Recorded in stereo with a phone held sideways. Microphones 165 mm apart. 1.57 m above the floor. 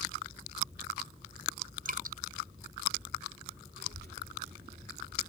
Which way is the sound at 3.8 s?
75° right (ahead or behind).